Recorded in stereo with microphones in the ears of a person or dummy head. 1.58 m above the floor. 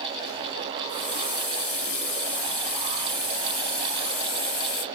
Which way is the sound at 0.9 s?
10° left (ahead or behind).